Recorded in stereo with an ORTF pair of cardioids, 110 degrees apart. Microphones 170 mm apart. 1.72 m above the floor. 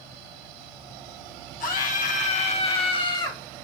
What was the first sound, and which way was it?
A scream, 60° left.